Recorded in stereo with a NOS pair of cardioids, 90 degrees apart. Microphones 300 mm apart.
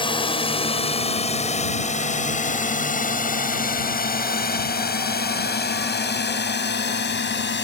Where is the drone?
15° left; by 7.7 s 35° left.